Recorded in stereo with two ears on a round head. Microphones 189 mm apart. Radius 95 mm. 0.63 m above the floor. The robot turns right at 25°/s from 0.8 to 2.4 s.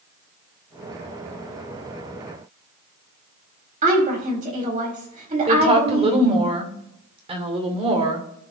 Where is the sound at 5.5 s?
30° right (ahead or behind), 2.5 m.